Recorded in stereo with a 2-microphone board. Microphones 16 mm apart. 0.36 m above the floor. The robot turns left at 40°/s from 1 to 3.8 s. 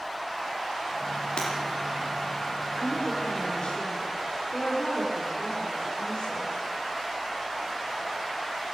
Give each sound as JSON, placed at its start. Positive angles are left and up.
{"t": 1.4, "sound": "breaking glass", "side_deg": 85, "distance_m": 7.0}
{"t": 2.8, "sound": "a woman speaking", "azimuth_deg": 165, "distance_m": 6.5}